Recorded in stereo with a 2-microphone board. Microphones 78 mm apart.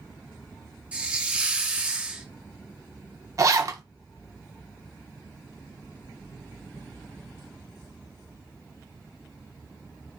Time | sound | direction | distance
0.9 | a hiss | 15° right (ahead or behind) | 0.9 m
3.4 | a zipper | 40° right (ahead or behind) | 0.7 m